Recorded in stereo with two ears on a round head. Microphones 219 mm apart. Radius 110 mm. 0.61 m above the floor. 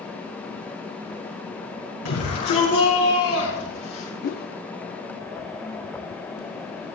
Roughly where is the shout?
Left.